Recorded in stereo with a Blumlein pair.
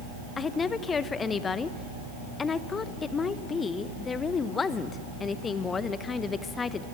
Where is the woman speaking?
20° left, 1.1 m.